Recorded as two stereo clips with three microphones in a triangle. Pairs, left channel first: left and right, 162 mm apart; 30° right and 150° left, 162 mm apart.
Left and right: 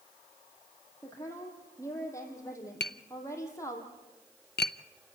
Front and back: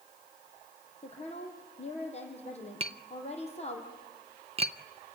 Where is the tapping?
100° left, 0.5 m.